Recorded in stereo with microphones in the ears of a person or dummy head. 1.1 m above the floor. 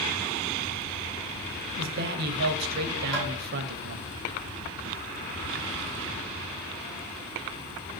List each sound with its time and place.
1.8 s a man speaking: 55° right (ahead or behind), 0.6 m
3.1 s tapping: 25° left (ahead or behind), 1.7 m